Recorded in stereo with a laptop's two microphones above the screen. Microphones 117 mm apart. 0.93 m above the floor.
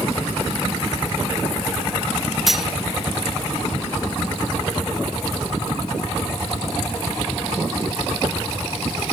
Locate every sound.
2.5 s cutlery clinking: centre (ahead or behind), 0.6 m